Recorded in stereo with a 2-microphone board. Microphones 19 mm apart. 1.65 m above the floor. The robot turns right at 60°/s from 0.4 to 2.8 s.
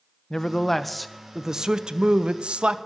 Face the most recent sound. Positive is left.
turn(degrees=-70)